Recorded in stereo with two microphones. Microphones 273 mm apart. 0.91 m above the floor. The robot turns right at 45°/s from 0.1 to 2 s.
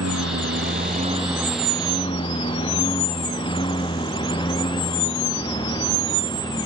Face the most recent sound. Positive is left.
turn(degrees=15)  # may be behind; listen again after turning